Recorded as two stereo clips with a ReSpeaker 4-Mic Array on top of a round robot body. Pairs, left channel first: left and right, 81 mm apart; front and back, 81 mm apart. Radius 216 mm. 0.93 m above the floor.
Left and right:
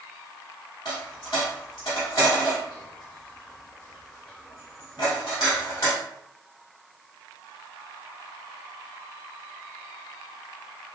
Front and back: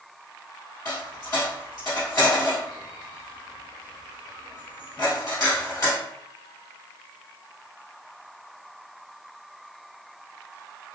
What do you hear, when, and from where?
0.8 s a dropped coin: 50° left, 1.2 m